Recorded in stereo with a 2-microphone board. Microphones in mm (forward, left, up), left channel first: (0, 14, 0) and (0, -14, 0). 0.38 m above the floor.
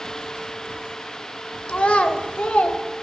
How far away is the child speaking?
About 0.9 m.